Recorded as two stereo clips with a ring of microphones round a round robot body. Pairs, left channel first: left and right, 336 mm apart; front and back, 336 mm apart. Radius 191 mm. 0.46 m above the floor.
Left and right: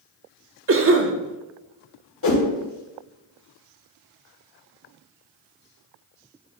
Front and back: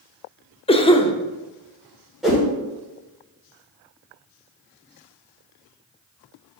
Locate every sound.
0.7 s a cough: 65° right, 0.9 m
2.2 s a whoosh: 90° left, 1.8 m